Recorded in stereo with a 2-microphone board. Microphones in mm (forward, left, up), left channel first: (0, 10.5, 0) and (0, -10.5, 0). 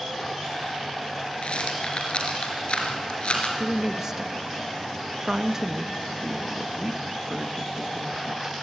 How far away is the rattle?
About 4.5 m.